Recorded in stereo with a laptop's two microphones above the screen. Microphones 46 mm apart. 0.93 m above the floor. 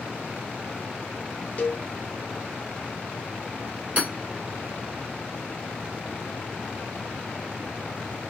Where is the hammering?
40° right (ahead or behind), 1.6 m.